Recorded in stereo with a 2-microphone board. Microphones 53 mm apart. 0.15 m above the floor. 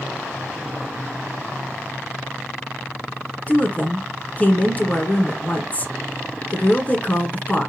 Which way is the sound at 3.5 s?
30° left (ahead or behind).